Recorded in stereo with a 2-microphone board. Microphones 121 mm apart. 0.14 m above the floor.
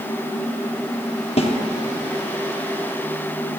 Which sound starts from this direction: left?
A snare drum, at 1.4 s.